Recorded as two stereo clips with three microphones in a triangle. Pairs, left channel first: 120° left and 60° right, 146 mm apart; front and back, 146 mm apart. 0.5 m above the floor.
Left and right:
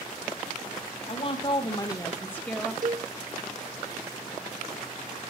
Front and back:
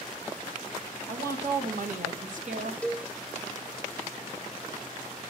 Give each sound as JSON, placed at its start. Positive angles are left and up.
{"t": 1.1, "sound": "a woman speaking", "azimuth_deg": 170, "distance_m": 3.0}
{"t": 2.8, "sound": "a cowbell", "azimuth_deg": -80, "distance_m": 1.0}